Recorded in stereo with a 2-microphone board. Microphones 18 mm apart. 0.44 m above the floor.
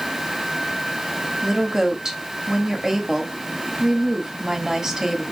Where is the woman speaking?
30° right (ahead or behind), 2 m.